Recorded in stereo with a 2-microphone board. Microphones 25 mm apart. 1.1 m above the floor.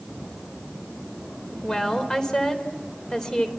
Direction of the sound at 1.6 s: 25° left (ahead or behind).